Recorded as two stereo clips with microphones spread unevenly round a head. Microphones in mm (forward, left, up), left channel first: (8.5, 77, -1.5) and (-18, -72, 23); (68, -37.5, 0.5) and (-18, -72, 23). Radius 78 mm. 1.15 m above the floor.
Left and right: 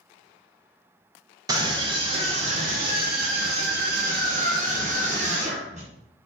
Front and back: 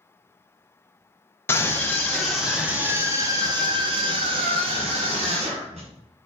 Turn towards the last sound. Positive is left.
turn(degrees=-150)